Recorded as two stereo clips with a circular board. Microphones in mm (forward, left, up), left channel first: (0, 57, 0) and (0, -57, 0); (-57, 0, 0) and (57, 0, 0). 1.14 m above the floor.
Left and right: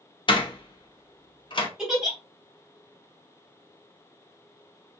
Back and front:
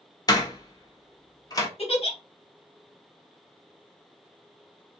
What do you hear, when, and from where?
0.3 s a door slam: 125° left, 0.7 m
1.8 s a giggle: 170° right, 1.3 m